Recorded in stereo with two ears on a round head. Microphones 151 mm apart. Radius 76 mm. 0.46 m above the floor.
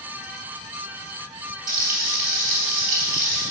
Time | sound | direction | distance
1.7 | frying | 55° right (ahead or behind) | 3 m